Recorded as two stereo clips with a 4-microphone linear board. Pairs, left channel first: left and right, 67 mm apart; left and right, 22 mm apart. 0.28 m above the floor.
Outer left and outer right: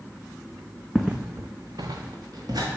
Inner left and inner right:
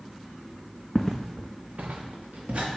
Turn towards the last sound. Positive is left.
turn(degrees=-70)  # may be behind; listen again after turning